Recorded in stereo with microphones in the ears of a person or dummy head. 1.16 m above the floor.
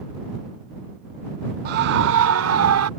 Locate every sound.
1.6 s a scream: 50° right (ahead or behind); by 2.9 s 80° right